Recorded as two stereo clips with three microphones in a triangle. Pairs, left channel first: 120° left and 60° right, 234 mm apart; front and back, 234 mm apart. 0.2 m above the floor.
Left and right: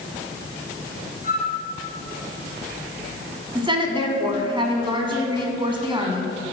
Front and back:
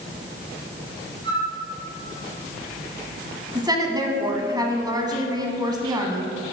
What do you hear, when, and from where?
1.2 s a flute: 70° left, 2.5 m
3.5 s a woman speaking: 115° right, 1.3 m